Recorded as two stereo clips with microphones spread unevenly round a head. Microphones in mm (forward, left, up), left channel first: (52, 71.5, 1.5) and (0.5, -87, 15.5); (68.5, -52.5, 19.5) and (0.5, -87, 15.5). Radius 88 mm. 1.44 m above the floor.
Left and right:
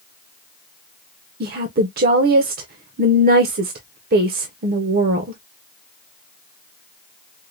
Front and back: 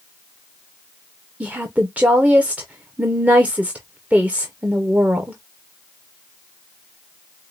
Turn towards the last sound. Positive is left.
turn(degrees=-80)